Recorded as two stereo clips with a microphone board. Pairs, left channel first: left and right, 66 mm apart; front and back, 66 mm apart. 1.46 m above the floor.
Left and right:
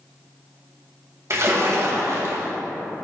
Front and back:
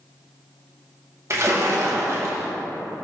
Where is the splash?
135° right, 1.4 m.